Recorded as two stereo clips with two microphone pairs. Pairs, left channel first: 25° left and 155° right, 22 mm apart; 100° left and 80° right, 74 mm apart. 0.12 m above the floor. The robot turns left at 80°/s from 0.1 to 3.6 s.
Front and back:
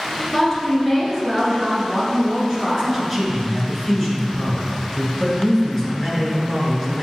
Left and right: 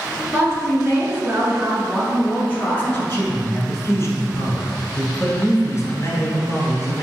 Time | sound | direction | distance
0.3 | a woman speaking | 40° right | 1.3 m
2.8 | a man speaking | 155° left | 1.3 m